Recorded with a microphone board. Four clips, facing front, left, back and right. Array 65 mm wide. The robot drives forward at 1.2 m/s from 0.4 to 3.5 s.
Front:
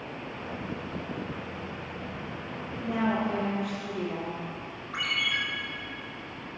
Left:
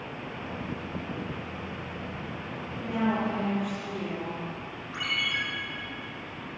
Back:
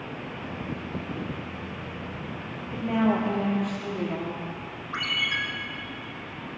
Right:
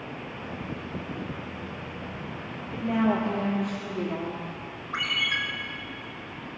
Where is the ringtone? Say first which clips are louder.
Right 3 dB, back 1 dB; 140° right, 3.5 m.